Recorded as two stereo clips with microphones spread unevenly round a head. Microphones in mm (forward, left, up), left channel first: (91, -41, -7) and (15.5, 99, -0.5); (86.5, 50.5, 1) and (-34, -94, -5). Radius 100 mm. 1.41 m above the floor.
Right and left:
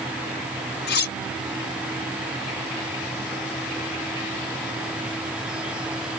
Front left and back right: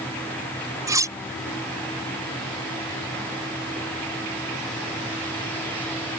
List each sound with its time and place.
0.9 s cutlery clinking: 55° right